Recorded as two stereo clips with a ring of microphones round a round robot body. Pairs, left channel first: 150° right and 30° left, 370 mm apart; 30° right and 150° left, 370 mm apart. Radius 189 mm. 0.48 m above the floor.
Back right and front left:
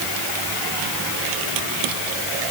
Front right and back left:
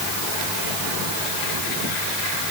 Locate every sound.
Only background noise.